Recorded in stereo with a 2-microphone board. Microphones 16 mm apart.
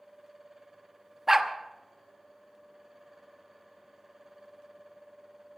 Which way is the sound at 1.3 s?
20° right (ahead or behind).